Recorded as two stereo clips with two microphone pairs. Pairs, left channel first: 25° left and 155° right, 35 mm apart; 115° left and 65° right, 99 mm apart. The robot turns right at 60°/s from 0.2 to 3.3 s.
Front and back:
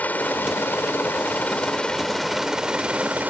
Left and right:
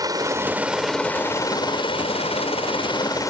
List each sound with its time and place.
0.0 s a helicopter: 15° right; by 3.3 s 170° left